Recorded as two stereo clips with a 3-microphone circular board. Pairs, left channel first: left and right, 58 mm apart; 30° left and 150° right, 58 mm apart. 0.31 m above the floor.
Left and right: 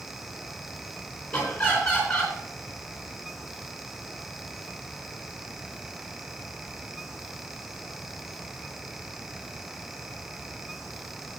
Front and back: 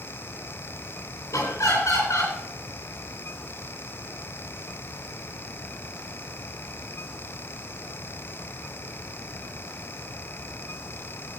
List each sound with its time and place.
1.3 s laughter: 10° left, 4 m